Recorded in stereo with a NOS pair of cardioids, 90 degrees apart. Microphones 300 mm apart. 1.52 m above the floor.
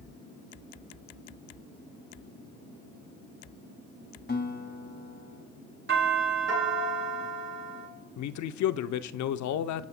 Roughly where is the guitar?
Ahead left.